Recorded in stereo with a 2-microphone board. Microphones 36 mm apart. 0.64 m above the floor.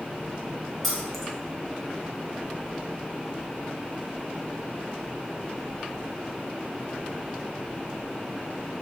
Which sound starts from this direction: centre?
Keys jangling, at 0.8 s.